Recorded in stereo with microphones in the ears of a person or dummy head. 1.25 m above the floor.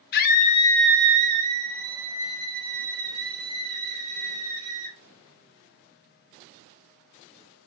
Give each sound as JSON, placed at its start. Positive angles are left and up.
{"t": 0.1, "sound": "a scream", "side_deg": 55, "distance_m": 0.8}